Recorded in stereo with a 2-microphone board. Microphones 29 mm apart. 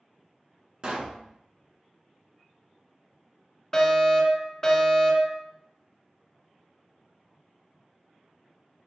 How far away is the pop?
About 0.9 m.